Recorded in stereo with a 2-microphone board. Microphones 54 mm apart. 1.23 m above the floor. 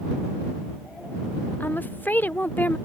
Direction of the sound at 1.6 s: 35° left (ahead or behind).